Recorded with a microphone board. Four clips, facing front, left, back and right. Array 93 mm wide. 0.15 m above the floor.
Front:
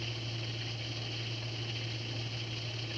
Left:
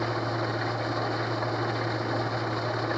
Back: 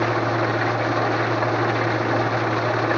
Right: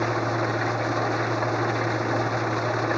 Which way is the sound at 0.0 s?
170° right.